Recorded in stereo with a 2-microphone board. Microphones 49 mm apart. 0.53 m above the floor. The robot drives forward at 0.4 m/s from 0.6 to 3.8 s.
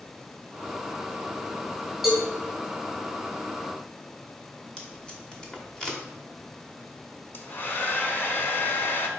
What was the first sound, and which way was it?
A cowbell, 5° right (ahead or behind).